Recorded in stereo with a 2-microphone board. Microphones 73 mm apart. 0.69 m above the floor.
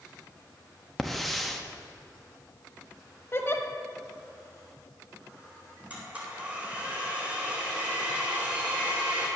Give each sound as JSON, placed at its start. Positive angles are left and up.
{"t": 1.0, "sound": "a hiss", "side_deg": 0, "distance_m": 0.8}
{"t": 3.3, "sound": "a giggle", "side_deg": 35, "distance_m": 1.0}
{"t": 5.9, "sound": "a blender", "side_deg": -20, "distance_m": 3.0}